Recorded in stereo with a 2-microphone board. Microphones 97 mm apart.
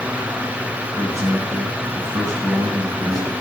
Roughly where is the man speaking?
Right.